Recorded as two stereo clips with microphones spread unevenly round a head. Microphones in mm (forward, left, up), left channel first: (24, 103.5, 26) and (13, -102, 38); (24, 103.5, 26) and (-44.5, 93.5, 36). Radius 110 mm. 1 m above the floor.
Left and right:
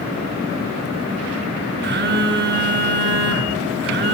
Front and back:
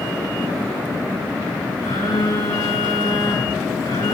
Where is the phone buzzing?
55° right, 7 m.